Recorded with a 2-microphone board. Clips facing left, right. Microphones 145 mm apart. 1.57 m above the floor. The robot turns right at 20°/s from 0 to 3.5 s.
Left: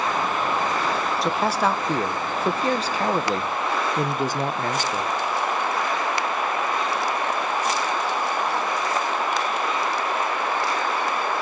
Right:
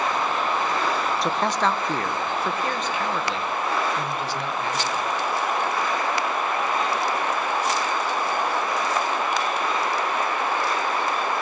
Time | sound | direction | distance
1.2 | a man speaking | straight ahead | 0.9 m